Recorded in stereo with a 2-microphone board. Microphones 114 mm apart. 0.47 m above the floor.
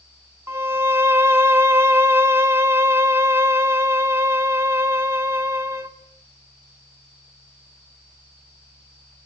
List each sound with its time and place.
0.5 s a violin: 20° right (ahead or behind), 1.4 m